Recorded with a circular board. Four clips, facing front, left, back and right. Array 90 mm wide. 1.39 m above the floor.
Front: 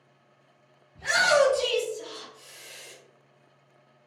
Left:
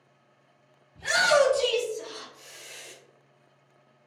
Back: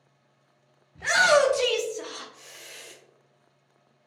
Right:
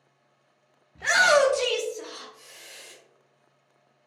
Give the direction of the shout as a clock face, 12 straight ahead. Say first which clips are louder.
Right 2 dB, back 2 dB; 4 o'clock.